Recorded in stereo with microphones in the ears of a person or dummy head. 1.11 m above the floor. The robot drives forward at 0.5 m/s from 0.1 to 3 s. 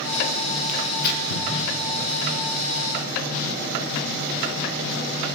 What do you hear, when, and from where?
0.7 s tearing paper: 45° left (ahead or behind), 0.8 m; by 1.5 s 75° left (ahead or behind), 0.6 m